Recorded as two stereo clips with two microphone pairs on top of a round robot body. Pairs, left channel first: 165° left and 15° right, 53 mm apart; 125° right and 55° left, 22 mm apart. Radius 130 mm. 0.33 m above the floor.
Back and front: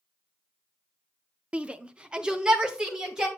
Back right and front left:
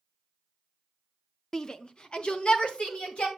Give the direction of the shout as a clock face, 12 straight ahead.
3 o'clock.